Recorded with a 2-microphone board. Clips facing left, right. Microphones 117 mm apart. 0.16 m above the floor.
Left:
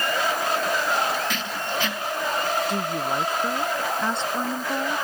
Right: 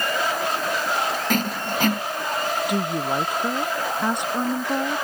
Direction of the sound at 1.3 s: 50° right (ahead or behind).